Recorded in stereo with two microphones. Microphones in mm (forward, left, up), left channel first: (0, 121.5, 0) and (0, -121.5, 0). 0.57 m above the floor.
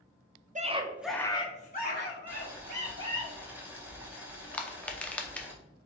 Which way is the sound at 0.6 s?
30° right (ahead or behind).